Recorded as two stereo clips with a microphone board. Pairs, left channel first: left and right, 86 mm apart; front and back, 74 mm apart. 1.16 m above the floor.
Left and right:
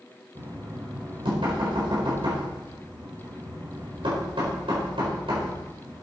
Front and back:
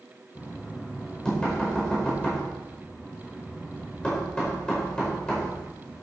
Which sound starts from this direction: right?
Knocking, at 0.3 s.